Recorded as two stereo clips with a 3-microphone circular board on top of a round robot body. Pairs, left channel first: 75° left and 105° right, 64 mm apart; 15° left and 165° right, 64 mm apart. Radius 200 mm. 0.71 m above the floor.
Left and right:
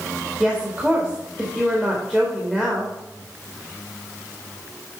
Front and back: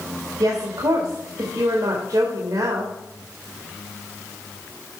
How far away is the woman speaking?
About 1.7 m.